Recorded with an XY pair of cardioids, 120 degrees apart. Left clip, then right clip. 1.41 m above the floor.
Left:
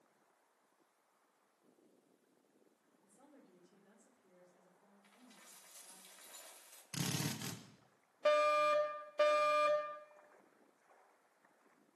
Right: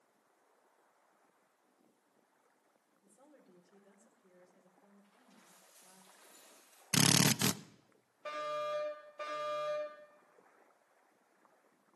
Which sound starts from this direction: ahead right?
A drill, at 6.9 s.